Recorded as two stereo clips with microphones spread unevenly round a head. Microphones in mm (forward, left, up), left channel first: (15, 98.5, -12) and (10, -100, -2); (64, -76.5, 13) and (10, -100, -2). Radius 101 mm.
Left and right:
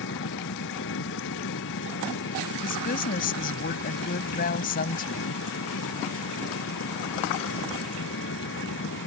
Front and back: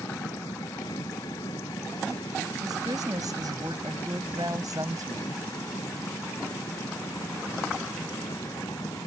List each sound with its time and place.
0.0 s an engine running: 60° left
2.6 s a woman speaking: 140° left